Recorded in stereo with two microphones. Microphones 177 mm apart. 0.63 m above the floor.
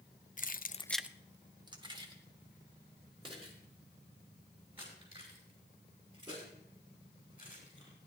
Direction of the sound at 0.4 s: 50° left (ahead or behind).